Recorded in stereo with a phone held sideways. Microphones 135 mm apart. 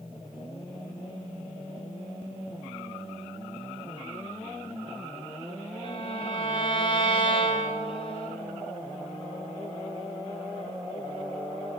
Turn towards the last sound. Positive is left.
turn(degrees=40)  # may be behind; listen again after turning